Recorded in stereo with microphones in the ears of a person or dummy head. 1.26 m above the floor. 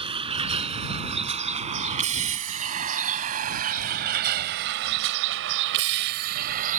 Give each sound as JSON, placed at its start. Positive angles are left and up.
{"t": 0.0, "sound": "a vehicle", "side_deg": -30}